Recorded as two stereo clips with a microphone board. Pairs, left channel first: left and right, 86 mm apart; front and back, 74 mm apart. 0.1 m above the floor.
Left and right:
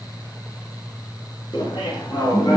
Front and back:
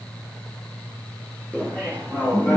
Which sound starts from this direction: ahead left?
Laughter, at 1.5 s.